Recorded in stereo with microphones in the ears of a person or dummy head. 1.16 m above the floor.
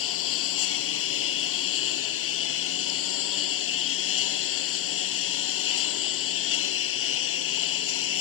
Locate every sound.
0.0 s a lawn mower: 80° left